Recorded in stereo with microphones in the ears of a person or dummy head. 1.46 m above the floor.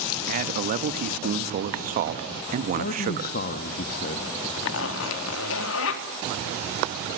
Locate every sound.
0.3 s a man speaking: 40° right (ahead or behind), 1.8 m
2.7 s a man speaking: 50° left (ahead or behind), 2.0 m
4.6 s a zipper: 75° left (ahead or behind), 3 m